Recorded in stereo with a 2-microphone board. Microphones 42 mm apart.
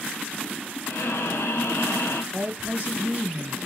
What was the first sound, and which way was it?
Breathing, 75° left (ahead or behind).